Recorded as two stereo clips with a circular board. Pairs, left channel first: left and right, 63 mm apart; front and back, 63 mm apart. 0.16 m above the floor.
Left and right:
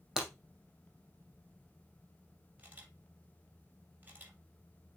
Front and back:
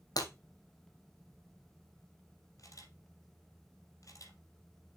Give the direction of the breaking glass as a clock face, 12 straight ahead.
12 o'clock.